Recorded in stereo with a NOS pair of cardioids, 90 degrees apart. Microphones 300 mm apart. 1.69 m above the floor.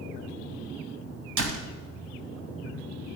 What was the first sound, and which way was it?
A door slam, 70° right.